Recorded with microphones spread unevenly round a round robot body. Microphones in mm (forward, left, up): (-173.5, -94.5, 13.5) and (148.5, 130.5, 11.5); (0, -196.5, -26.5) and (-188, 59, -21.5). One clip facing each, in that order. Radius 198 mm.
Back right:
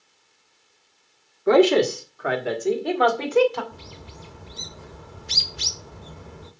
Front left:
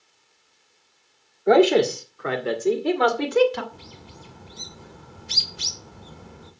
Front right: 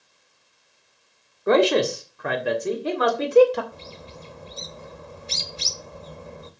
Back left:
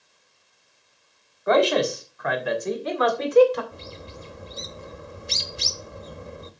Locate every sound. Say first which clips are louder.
1.5 s a man speaking: even, front right 2 dB; 80° right, 1.6 m; by 3.6 s 10° right, 1.8 m
3.7 s a bird: back right 2 dB, back left 1 dB; 165° right, 1.4 m